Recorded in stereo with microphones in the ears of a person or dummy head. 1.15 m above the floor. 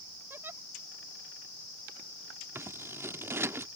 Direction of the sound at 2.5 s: 10° right (ahead or behind).